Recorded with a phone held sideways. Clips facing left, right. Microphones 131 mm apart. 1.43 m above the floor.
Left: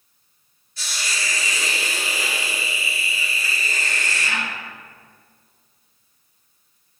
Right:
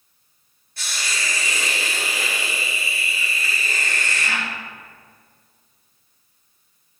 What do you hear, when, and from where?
0.8 s a hiss: 55° right (ahead or behind), 1.4 m